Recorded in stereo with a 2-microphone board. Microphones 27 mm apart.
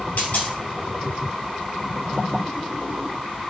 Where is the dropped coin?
55° left (ahead or behind), 1.7 m.